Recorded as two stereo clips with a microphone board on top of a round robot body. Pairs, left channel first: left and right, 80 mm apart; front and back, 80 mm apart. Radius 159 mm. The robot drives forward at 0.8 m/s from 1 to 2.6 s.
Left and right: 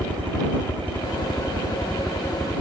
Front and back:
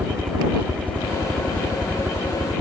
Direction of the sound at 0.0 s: 135° left.